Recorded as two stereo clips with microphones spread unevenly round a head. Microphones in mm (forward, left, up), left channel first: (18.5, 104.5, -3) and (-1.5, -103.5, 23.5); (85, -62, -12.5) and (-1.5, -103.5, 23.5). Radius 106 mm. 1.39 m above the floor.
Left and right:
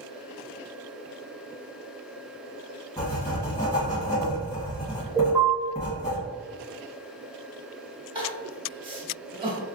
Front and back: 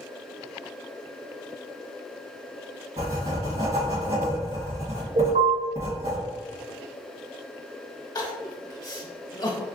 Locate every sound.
3.0 s writing: 165° left, 1.5 m
5.2 s an alarm: straight behind, 1.8 m
8.2 s crying: 25° right, 1.1 m